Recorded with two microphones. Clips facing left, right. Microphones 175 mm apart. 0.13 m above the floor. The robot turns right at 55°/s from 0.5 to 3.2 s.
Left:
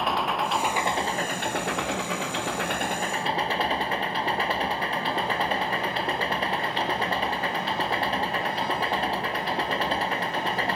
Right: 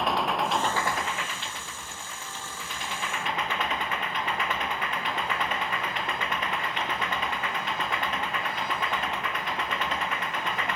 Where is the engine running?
Straight ahead; by 10.8 s 150° left.